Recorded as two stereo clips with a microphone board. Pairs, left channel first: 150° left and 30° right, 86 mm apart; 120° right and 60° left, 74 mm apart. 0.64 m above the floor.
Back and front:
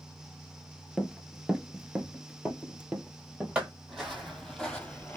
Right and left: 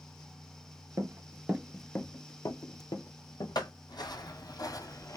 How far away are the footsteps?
About 1.5 m.